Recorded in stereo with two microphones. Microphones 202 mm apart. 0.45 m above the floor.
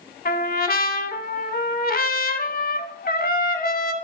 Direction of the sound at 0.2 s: 50° left (ahead or behind).